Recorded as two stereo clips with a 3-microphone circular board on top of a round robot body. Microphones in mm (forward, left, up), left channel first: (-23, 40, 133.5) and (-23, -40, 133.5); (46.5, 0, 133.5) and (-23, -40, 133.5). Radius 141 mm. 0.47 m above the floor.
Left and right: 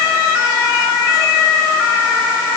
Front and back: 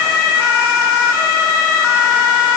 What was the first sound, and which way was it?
Only background noise.